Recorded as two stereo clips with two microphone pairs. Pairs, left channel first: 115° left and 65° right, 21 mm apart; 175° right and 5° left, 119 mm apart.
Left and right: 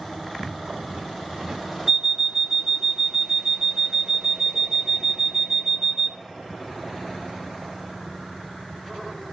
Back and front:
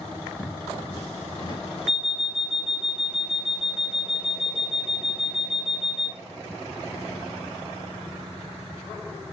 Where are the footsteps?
105° right, 3 m; by 1.6 s 125° right, 3 m.